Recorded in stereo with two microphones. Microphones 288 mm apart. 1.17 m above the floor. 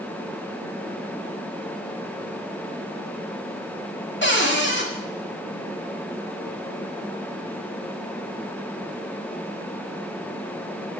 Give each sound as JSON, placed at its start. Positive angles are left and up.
{"t": 4.2, "sound": "a cupboard door", "side_deg": 40, "distance_m": 2.0}